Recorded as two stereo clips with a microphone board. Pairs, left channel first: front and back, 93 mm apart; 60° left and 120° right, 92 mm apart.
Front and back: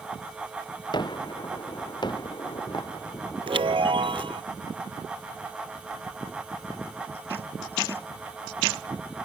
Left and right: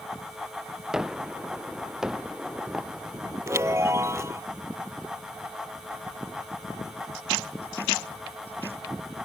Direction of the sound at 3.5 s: 175° right.